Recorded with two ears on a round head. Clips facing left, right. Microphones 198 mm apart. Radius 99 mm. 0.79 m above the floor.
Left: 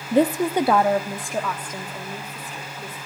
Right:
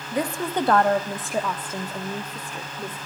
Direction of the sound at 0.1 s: 25° left (ahead or behind).